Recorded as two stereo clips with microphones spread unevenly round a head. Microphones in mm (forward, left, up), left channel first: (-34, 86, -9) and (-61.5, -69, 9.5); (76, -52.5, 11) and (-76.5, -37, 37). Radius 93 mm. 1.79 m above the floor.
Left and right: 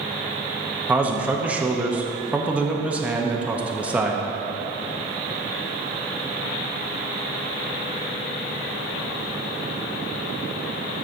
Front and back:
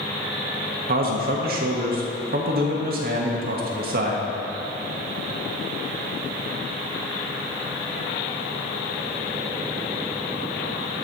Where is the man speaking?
Straight behind, 0.9 m.